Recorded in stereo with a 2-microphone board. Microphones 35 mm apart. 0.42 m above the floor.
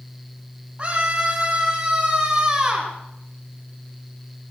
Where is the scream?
25° right (ahead or behind), 3 m; by 2.9 s 10° right (ahead or behind), 3.5 m.